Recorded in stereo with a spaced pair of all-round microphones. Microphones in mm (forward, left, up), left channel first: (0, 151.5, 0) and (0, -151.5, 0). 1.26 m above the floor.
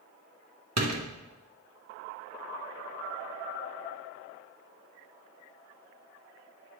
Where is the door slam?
60° right (ahead or behind), 0.6 m.